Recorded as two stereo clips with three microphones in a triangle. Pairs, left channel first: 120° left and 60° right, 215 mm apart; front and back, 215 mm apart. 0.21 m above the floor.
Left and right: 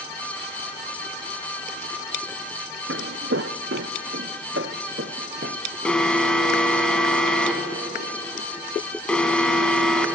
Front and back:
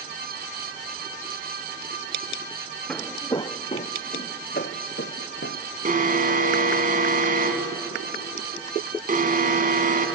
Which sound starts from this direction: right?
Footsteps, at 2.9 s.